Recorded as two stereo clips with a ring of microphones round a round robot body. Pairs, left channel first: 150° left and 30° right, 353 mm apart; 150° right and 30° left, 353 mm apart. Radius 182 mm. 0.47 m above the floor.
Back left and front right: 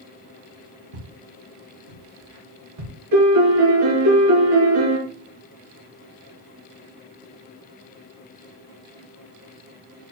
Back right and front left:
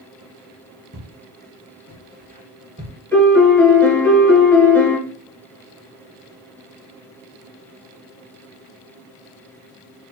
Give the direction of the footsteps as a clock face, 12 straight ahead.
1 o'clock.